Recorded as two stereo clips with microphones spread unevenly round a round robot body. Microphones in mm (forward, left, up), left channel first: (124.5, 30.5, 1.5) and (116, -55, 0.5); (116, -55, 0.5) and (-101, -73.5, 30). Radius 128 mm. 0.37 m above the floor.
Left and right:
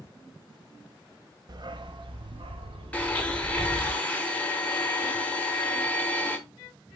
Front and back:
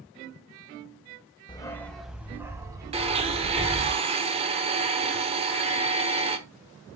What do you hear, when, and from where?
1.5 s a dog barking: 60° right, 0.8 m; by 3.9 s 110° right, 2.5 m
2.9 s a blender: 140° left, 1.0 m